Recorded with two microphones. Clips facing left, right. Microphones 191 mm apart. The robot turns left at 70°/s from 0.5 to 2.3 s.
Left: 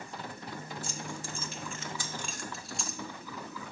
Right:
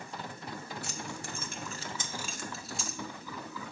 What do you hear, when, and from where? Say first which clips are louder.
0.8 s keys jangling: left 1 dB; 65° right (ahead or behind), 0.8 m; by 3.0 s centre (ahead or behind), 0.8 m